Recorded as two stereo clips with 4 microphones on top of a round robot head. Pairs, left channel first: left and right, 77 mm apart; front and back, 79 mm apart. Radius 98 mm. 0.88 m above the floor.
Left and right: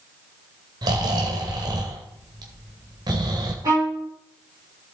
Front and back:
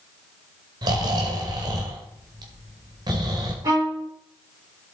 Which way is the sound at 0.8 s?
135° right.